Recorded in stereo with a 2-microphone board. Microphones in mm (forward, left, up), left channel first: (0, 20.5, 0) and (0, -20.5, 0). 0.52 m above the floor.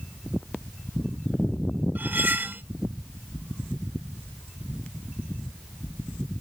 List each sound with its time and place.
1.9 s cutlery clinking: 50° right (ahead or behind), 0.9 m